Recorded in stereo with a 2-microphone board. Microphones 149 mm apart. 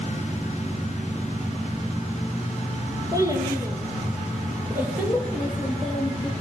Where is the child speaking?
25° right (ahead or behind), 4.5 m; by 6.3 s centre (ahead or behind), 4.5 m.